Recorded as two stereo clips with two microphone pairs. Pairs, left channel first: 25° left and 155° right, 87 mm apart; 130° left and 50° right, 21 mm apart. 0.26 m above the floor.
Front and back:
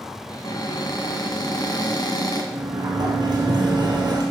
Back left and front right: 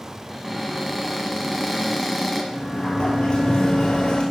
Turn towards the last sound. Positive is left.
turn(degrees=165)